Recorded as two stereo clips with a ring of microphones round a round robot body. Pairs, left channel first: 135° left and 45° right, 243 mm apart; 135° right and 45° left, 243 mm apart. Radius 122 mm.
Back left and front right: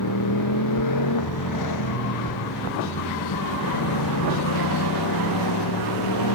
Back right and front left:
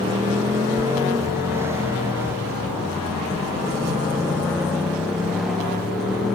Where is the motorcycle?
120° left; by 6.4 s 135° left.